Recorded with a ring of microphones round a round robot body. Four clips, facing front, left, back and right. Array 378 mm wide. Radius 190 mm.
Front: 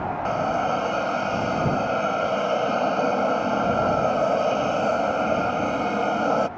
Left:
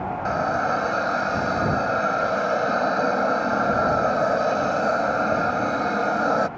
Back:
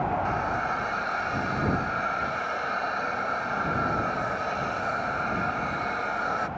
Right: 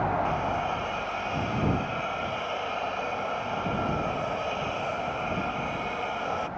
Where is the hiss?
40° left.